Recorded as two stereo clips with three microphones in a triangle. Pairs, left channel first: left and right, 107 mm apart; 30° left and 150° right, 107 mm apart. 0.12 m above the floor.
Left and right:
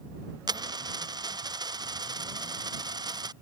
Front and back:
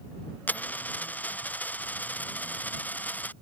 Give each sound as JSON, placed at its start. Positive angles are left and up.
{"t": 0.5, "sound": "a dropped coin", "azimuth_deg": -45}